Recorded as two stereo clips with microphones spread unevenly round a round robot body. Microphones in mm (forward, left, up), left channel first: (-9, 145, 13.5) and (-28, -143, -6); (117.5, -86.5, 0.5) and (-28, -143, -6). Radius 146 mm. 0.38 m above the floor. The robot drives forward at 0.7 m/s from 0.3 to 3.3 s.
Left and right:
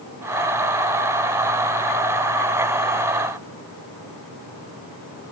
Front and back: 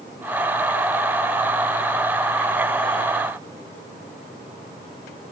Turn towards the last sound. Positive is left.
No sound to turn to.